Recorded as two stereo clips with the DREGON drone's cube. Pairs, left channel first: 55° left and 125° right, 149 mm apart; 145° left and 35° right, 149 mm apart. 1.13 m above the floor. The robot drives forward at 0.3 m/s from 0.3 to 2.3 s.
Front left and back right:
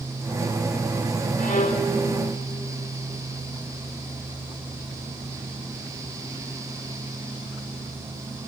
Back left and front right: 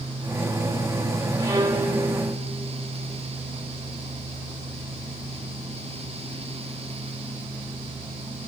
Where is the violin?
30° left, 2.5 m; by 1.9 s 35° left, 2.5 m.